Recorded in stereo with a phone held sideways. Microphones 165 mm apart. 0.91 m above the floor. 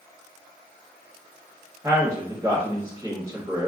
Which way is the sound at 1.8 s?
20° right (ahead or behind).